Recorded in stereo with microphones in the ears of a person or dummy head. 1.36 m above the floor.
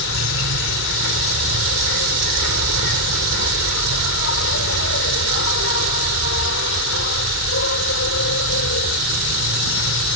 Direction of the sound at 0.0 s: 70° left (ahead or behind).